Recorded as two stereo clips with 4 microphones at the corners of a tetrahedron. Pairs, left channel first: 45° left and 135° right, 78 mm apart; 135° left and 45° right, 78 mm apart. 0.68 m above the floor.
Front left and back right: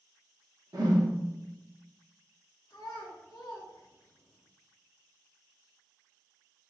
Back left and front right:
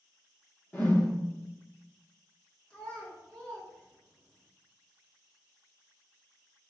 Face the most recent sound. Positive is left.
turn(degrees=55)